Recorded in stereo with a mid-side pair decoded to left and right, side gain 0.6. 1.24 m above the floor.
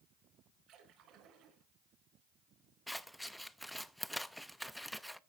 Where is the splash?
60° right, 5 m.